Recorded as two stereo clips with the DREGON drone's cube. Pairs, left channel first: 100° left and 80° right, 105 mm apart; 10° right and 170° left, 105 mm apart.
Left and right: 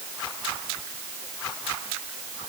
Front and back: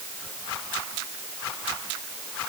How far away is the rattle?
No rattle in this recording.